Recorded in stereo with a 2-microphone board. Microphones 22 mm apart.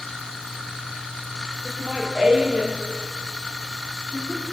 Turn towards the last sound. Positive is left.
turn(degrees=-40)  # may be behind; listen again after turning